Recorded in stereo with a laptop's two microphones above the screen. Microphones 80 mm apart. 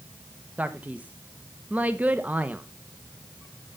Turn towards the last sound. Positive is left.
turn(degrees=-20)  # may be behind; listen again after turning